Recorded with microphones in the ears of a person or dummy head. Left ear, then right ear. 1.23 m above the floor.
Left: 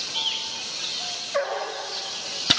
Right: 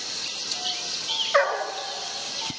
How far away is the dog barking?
About 1.7 m.